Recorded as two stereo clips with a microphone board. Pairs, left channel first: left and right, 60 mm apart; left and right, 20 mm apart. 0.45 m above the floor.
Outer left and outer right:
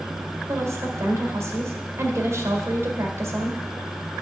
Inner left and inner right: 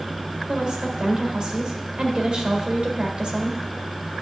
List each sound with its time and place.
0.5 s a woman speaking: 50° right (ahead or behind), 1.8 m